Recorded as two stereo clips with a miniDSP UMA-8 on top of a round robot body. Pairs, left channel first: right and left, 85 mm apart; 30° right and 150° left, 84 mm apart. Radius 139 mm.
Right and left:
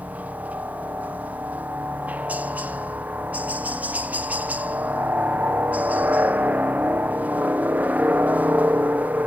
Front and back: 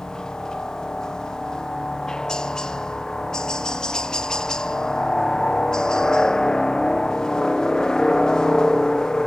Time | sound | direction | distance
0.0 | a helicopter | 45° left | ?